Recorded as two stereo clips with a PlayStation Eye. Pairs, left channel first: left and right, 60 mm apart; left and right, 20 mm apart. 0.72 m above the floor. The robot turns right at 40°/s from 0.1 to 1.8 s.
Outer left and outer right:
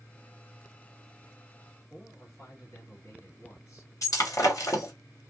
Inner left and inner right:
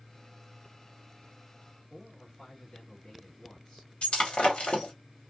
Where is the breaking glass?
70° left (ahead or behind), 1.2 m.